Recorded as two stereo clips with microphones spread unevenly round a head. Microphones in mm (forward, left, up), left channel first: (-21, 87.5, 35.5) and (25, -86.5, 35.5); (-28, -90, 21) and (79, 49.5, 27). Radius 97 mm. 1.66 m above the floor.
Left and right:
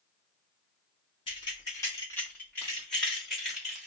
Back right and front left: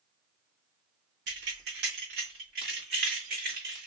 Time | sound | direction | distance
1.3 | keys jangling | 45° left | 1.2 m